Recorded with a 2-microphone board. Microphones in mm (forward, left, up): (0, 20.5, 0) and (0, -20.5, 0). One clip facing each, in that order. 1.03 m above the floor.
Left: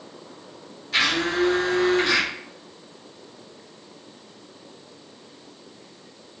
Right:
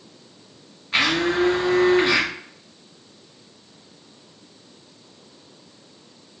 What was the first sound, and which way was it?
A blender, 25° right (ahead or behind).